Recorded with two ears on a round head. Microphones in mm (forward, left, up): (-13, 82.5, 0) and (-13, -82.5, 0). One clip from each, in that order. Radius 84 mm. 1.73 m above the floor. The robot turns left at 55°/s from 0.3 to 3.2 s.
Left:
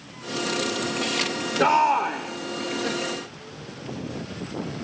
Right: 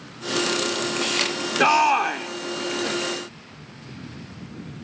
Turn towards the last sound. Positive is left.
turn(degrees=-160)